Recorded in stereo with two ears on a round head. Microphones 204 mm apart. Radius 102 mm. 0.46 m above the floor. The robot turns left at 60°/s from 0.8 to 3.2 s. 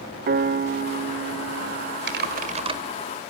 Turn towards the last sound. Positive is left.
turn(degrees=180)